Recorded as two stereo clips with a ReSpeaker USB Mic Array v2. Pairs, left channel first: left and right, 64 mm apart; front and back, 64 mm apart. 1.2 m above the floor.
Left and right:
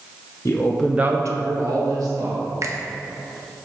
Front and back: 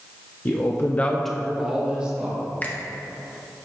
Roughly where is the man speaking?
Ahead left.